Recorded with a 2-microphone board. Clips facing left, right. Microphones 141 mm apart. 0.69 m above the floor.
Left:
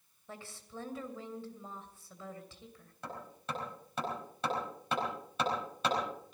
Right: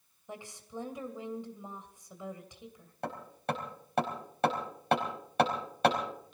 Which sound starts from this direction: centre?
A woman speaking, at 0.3 s.